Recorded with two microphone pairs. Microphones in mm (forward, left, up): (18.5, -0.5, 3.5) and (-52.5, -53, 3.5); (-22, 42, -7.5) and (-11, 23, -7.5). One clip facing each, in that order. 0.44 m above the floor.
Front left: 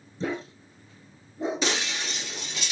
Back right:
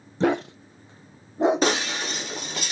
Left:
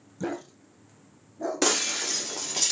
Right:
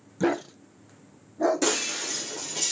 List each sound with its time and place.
0.2 s a dog barking: 125° right, 0.7 m
1.6 s breaking glass: 170° left, 2.5 m